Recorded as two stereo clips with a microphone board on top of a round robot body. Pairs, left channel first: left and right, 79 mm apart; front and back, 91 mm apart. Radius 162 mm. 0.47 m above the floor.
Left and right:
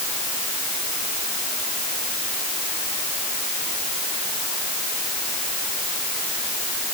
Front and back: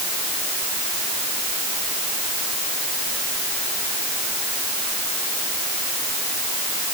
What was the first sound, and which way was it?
Only background noise.